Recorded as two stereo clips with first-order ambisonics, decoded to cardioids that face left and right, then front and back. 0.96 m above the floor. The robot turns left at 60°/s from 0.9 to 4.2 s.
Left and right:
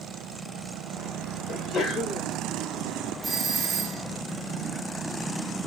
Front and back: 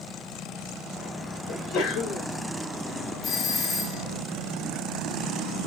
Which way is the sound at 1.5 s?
45° left.